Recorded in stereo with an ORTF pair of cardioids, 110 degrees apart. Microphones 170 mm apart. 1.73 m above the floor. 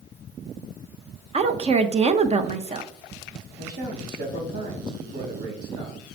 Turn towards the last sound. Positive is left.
turn(degrees=-65)